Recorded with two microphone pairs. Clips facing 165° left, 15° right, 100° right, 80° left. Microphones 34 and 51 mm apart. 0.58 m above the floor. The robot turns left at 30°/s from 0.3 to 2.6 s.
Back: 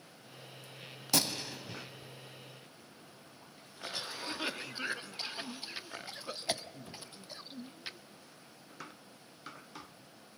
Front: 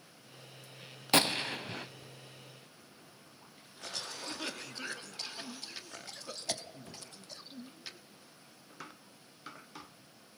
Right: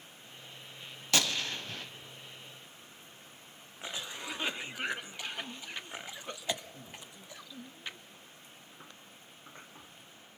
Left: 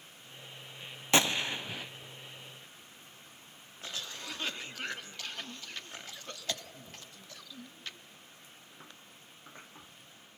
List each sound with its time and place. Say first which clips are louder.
1.1 s a gunshot: front 5 dB, left 3 dB; 20° left, 0.5 m; by 1.9 s straight ahead, 0.5 m
3.8 s a cough: back 2 dB, right 2 dB; 155° right, 0.9 m